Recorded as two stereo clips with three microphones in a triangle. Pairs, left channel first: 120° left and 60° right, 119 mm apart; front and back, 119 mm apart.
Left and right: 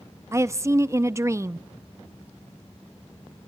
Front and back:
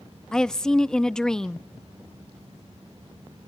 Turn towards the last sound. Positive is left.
turn(degrees=-80)